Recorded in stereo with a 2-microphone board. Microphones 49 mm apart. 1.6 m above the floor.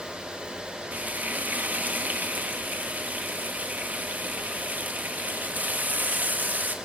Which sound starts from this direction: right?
Frying, at 0.9 s.